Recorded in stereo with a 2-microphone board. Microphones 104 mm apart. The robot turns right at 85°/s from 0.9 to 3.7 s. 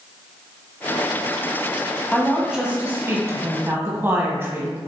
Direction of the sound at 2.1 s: 10° left (ahead or behind).